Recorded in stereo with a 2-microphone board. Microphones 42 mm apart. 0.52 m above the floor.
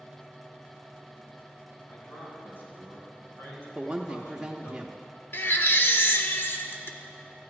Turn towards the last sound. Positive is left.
turn(degrees=60)  # may be behind; listen again after turning